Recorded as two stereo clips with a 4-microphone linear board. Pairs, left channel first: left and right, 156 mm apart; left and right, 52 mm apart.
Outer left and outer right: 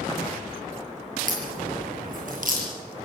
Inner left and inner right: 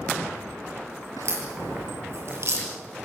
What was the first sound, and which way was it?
A crack, 60° right (ahead or behind).